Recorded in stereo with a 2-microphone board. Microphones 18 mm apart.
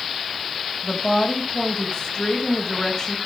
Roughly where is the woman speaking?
Left.